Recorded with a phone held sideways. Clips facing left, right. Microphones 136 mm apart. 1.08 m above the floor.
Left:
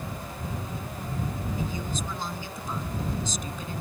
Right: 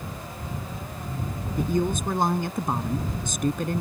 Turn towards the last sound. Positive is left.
turn(degrees=-60)  # may be behind; listen again after turning